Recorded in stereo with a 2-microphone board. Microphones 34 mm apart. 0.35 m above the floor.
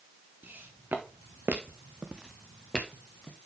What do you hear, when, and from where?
0.4 s footsteps: 70° right (ahead or behind), 2.5 m; by 3.4 s 20° left (ahead or behind), 2.5 m